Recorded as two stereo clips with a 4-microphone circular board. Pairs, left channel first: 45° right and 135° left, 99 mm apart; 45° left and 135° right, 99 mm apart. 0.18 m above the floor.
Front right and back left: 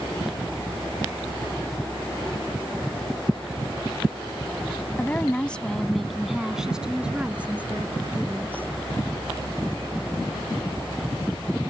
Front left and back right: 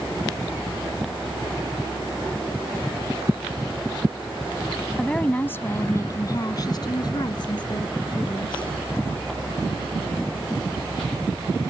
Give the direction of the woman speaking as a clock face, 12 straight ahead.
1 o'clock.